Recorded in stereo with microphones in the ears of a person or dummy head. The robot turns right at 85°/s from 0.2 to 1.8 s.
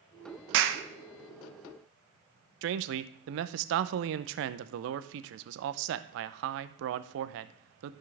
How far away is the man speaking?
About 0.6 m.